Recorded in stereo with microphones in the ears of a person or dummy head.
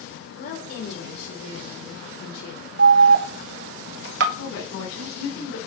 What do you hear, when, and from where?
0.4 s a woman speaking: 65° left (ahead or behind), 4.5 m
2.8 s an alarm: 70° right (ahead or behind), 1.0 m
4.3 s a woman speaking: 75° left (ahead or behind), 3 m